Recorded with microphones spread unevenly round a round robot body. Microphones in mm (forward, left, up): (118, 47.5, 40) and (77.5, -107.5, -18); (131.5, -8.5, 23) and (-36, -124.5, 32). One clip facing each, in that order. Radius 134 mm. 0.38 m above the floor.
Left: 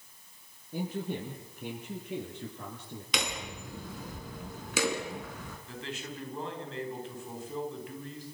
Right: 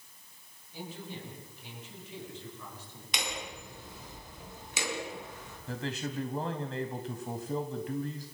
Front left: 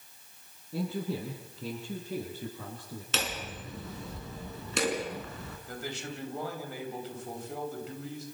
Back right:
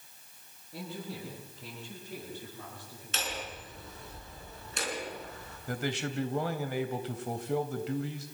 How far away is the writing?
No writing in this recording.